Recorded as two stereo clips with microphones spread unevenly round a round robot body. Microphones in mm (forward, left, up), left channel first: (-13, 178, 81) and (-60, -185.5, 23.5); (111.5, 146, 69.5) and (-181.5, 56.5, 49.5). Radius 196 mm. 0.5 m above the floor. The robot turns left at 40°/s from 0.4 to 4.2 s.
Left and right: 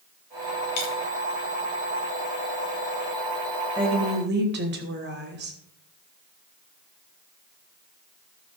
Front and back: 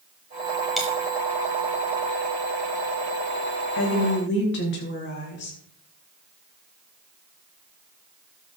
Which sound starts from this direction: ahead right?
A woman speaking, at 3.8 s.